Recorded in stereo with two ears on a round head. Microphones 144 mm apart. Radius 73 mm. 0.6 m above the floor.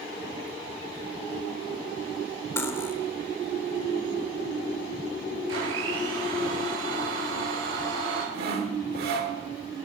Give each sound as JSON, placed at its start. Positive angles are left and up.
{"t": 2.6, "sound": "cutlery clinking", "side_deg": 15, "distance_m": 1.1}
{"t": 5.5, "sound": "a blender", "side_deg": -80, "distance_m": 7.5}
{"t": 8.3, "sound": "sawing", "side_deg": -65, "distance_m": 1.7}